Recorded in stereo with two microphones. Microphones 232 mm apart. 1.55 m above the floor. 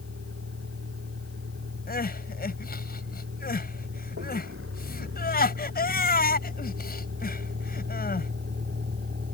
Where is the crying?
40° left (ahead or behind).